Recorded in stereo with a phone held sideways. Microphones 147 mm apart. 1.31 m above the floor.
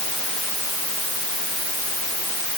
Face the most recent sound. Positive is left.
No sound to turn to.